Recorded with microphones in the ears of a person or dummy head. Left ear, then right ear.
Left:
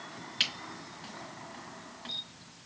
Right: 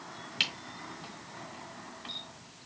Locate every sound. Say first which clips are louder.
0.4 s a camera shutter: even; 15° right (ahead or behind), 1.5 m